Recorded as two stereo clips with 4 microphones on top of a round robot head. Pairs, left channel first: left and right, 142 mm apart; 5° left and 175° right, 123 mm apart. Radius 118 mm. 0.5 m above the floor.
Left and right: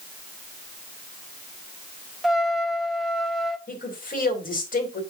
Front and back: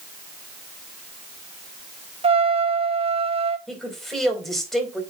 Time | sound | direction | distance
2.2 | a trumpet | 175° right | 1.1 m
3.7 | a woman speaking | 95° left | 4 m